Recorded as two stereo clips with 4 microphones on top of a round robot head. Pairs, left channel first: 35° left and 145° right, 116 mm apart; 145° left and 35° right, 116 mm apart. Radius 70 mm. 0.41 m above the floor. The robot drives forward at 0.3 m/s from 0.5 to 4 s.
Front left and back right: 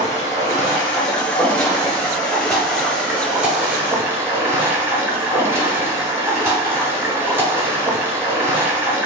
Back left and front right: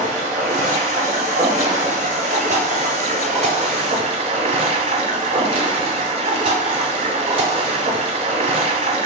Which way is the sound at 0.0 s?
30° right.